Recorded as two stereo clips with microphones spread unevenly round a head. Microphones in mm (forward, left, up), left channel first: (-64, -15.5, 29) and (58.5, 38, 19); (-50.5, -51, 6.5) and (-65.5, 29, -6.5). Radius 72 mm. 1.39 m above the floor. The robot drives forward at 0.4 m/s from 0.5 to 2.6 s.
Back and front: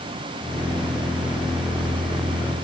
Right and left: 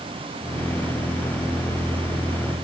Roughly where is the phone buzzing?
No phone buzzing in this recording.